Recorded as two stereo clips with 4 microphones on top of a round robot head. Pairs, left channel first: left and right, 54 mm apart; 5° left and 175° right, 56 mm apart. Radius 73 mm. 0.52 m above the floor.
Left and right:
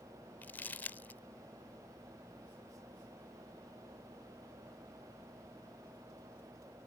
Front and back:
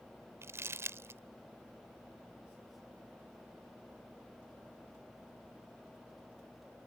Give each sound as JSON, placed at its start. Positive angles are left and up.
{"t": 0.4, "sound": "crumpling", "azimuth_deg": 145}